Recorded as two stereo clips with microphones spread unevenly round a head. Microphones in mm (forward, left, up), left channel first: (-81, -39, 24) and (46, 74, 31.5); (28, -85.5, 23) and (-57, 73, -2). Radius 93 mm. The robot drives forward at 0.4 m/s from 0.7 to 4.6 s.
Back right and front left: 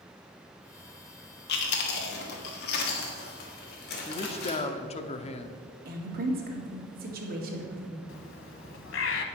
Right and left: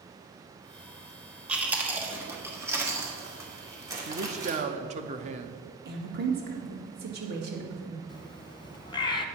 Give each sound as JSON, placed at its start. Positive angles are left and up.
{"t": 1.5, "sound": "chewing", "azimuth_deg": -155, "distance_m": 1.2}
{"t": 4.1, "sound": "a man speaking", "azimuth_deg": 165, "distance_m": 0.6}
{"t": 5.8, "sound": "a woman speaking", "azimuth_deg": 75, "distance_m": 2.0}
{"t": 8.1, "sound": "a bird", "azimuth_deg": -120, "distance_m": 0.7}